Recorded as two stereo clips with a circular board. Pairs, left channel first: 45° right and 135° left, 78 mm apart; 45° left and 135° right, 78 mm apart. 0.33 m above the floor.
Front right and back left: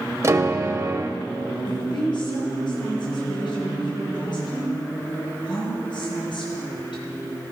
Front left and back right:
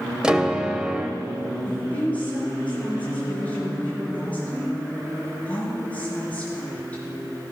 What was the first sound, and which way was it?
A piano, 150° left.